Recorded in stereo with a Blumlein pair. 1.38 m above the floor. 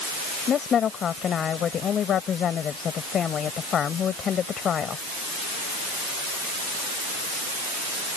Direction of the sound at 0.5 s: 25° left.